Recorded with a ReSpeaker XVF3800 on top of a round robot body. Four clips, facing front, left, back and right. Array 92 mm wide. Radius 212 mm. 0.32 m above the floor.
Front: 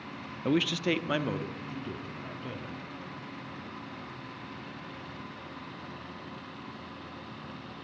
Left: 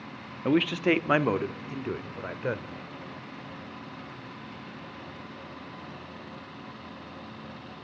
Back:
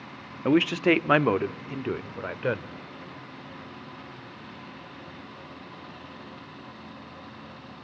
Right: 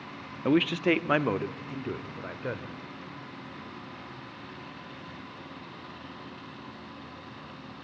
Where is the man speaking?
175° right, 1.1 m; by 2.7 s 165° left, 2 m.